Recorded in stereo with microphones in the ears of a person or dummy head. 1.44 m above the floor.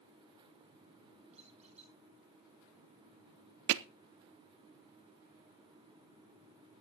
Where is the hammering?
70° right (ahead or behind), 0.6 m.